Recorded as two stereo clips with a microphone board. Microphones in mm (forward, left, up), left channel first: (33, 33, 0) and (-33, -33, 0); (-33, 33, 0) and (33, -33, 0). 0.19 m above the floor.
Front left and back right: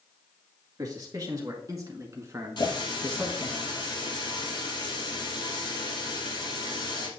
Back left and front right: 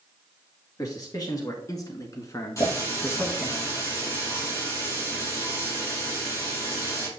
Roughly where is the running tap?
Left.